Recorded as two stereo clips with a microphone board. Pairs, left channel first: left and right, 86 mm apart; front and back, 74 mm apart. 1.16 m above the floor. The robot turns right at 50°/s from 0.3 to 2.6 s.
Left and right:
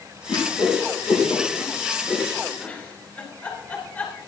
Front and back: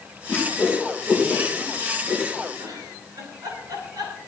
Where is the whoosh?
60° left, 5.5 m; by 2.5 s 170° left, 5.5 m.